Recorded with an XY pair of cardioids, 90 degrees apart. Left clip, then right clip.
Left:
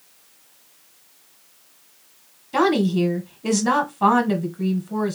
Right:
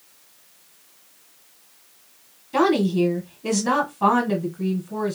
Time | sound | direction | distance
2.5 | a woman speaking | 25° left | 1.4 m